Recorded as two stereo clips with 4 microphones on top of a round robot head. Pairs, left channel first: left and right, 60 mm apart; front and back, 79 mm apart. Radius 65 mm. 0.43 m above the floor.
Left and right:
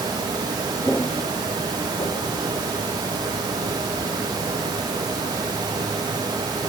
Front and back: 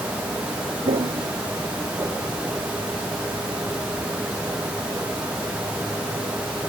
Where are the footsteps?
170° left, 1.7 m; by 2.9 s 90° left, 3 m.